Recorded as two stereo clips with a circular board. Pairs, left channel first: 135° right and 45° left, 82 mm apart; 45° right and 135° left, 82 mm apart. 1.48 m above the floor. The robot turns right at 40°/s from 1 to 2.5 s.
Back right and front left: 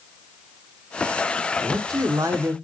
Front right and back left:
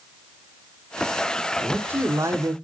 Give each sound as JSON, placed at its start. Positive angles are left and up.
{"t": 1.6, "sound": "a man speaking", "azimuth_deg": 60, "distance_m": 0.6}